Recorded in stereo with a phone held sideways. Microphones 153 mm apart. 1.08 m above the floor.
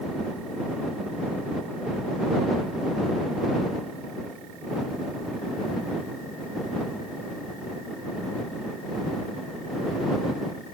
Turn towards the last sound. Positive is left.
No sound to turn to.